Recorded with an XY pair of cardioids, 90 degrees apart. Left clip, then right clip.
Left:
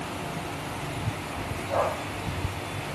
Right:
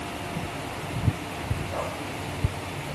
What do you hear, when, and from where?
Only background noise.